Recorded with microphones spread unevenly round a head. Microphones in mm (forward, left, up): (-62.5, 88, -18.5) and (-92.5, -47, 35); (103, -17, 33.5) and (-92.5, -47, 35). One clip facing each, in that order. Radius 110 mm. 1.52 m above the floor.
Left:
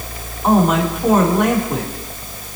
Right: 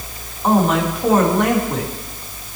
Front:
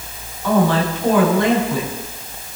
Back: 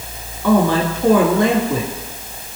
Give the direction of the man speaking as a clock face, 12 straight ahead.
7 o'clock.